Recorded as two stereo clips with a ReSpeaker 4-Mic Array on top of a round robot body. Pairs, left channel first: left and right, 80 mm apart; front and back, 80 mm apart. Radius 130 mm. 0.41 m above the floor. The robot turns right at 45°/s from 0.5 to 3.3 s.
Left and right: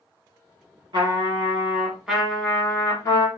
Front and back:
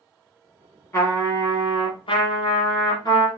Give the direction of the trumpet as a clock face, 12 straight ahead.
2 o'clock.